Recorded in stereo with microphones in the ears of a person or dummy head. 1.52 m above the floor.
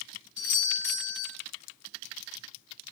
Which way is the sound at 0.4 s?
35° left (ahead or behind).